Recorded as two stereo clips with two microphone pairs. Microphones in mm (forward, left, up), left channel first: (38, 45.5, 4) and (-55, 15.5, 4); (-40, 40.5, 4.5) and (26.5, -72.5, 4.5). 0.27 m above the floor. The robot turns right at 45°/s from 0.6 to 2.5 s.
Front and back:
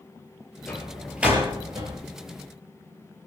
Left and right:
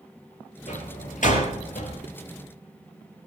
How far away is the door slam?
About 5 m.